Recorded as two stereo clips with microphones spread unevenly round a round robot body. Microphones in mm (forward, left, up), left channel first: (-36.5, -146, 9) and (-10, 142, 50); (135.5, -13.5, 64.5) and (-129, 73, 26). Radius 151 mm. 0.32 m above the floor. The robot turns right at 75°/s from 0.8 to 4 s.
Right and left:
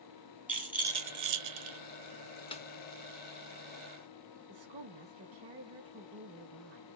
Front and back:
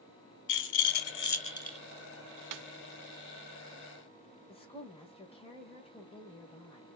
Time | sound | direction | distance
0.5 | a rattle | straight ahead | 1.7 m
2.5 | a snare drum | 170° right | 0.6 m
4.5 | a woman speaking | 55° left | 1.4 m